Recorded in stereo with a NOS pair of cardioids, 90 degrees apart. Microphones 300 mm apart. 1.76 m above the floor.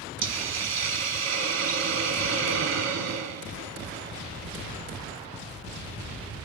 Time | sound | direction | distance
0.2 | a hiss | 60° right | 1.4 m